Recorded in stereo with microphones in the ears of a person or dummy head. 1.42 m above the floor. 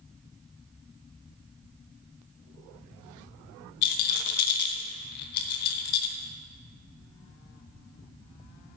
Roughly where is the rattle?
Left.